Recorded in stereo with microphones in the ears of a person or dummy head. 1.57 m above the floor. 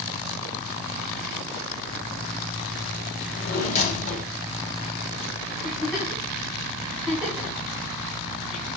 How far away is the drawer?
About 3 m.